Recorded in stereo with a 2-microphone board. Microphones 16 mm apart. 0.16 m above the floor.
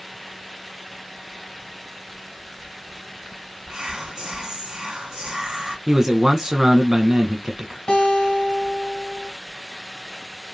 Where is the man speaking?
30° right (ahead or behind), 1.3 m.